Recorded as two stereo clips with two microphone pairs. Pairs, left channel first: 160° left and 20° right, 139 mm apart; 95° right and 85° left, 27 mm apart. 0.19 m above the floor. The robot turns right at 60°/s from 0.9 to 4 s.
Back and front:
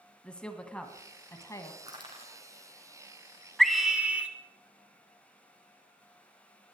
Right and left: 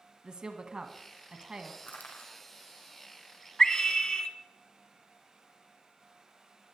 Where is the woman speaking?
85° left, 1.6 m; by 1.7 s 135° left, 1.6 m.